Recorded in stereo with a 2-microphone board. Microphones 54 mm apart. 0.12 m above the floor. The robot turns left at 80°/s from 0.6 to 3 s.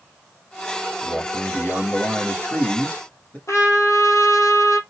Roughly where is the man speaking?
Behind.